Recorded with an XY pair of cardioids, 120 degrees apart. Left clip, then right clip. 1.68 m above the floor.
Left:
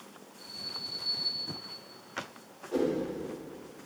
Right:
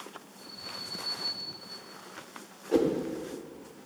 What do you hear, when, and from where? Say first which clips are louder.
0.4 s an alarm: left 3 dB; straight ahead, 4.5 m
2.7 s a whoosh: right 4 dB; 50° right, 1.5 m